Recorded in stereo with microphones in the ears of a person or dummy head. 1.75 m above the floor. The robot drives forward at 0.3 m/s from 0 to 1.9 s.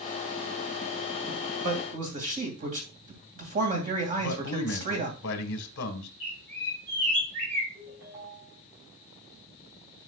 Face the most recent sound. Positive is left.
turn(degrees=-75)  # may be behind; listen again after turning